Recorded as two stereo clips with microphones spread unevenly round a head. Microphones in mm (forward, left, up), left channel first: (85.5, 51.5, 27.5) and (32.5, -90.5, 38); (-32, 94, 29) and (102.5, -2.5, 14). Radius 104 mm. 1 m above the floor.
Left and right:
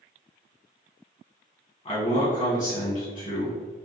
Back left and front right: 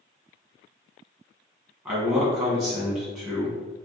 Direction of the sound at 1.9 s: 30° left.